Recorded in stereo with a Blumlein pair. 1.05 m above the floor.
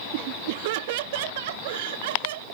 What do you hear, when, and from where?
0.1 s laughter: 45° right; by 2.5 s 55° right